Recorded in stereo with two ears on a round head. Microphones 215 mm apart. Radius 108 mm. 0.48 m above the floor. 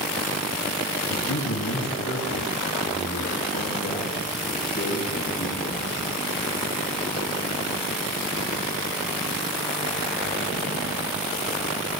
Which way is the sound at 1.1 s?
80° left.